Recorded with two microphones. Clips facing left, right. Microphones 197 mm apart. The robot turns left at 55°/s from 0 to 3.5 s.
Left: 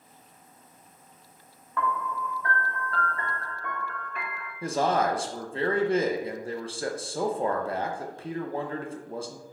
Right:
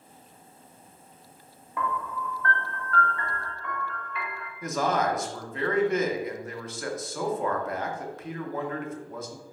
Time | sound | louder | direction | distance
1.8 | a piano | left 1 dB | 160° right | 0.8 m
4.6 | a man speaking | left 1 dB | 30° left (ahead or behind) | 0.6 m